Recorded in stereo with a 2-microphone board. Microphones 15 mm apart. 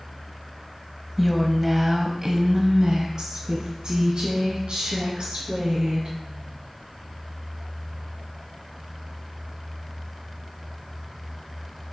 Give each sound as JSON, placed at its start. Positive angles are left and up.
{"t": 1.2, "sound": "a woman speaking", "side_deg": 10, "distance_m": 1.0}